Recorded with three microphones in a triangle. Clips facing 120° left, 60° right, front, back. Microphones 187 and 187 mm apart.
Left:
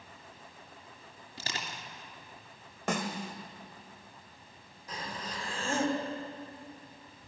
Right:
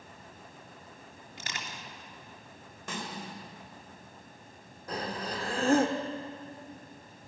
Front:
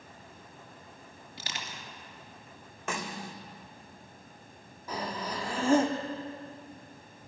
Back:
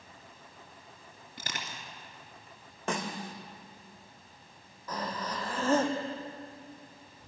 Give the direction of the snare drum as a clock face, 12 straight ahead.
8 o'clock.